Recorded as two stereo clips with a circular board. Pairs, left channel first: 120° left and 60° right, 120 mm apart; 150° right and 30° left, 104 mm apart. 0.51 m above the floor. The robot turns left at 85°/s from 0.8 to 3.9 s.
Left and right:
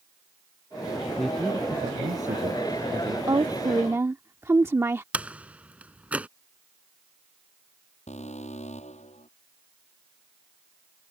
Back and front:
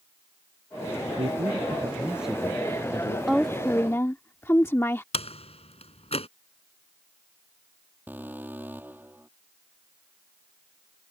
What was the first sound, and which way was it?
A man speaking, 35° left.